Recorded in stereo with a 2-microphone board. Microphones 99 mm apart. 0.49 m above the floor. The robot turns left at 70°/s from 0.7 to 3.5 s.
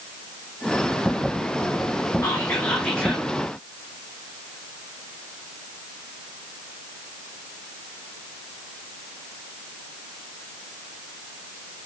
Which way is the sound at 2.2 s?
65° left.